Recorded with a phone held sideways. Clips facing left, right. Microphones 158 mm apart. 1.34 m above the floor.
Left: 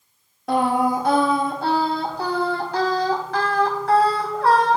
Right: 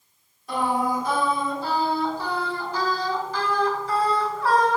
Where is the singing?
80° left, 3 m.